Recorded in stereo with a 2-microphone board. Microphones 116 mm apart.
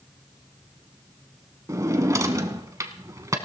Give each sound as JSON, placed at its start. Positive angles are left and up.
{"t": 1.7, "sound": "a drawer", "side_deg": -30, "distance_m": 0.9}